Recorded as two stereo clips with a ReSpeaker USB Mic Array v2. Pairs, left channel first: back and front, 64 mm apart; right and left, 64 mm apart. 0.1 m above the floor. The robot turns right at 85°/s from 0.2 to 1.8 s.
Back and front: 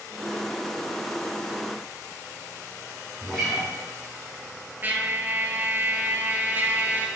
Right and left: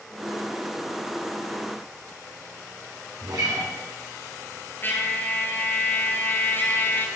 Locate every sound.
3.2 s a guitar: 100° left, 2 m
4.8 s a trumpet: 45° right, 0.8 m